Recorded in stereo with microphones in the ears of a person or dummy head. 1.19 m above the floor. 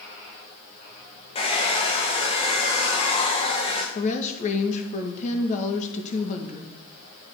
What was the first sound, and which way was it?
A hair dryer, 30° left (ahead or behind).